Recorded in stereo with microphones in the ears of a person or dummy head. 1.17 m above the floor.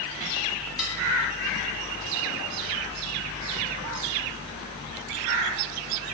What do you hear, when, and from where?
0.8 s dishes clattering: 5° left (ahead or behind), 3 m